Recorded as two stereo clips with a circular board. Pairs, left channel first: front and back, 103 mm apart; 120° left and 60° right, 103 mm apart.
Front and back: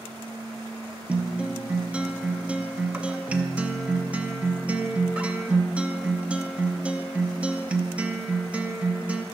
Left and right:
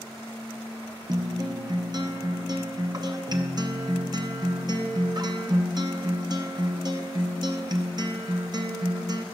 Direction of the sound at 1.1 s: 105° right.